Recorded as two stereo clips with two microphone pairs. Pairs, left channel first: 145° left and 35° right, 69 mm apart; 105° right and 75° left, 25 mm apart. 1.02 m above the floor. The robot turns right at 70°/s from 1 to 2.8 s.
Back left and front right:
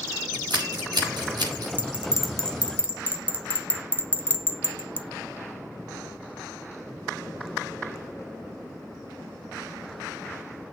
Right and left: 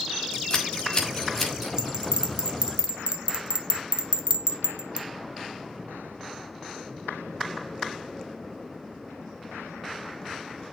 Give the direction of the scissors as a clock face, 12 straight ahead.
2 o'clock.